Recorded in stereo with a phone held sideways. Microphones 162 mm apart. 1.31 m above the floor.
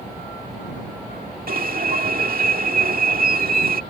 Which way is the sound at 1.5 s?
70° right (ahead or behind).